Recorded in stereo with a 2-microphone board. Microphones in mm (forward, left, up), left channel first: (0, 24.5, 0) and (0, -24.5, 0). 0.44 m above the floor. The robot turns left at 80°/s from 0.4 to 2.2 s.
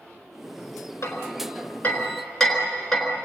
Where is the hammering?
80° left, 4 m; by 3.1 s 5° left (ahead or behind), 4 m.